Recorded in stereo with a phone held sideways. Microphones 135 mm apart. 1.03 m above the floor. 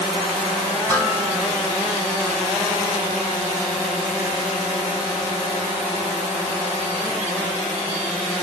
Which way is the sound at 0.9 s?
15° left (ahead or behind).